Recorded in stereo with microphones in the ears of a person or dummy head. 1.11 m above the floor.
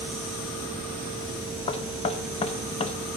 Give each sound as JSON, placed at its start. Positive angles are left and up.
{"t": 1.7, "sound": "knocking", "side_deg": 30, "distance_m": 0.8}